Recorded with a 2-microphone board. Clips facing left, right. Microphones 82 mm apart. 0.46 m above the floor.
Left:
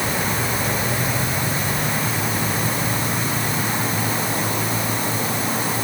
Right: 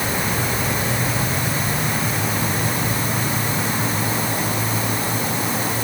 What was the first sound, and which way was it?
Only background noise.